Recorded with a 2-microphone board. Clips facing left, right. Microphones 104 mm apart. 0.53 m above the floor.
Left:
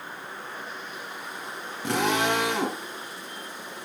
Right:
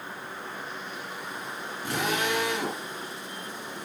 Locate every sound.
1.8 s a drill: 80° left, 4 m